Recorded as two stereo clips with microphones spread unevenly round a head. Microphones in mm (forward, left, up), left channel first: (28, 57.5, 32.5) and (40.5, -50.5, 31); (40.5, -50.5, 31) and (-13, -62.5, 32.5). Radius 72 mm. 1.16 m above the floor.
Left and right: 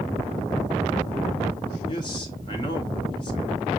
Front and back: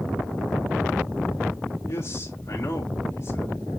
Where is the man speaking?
50° left, 2.0 m.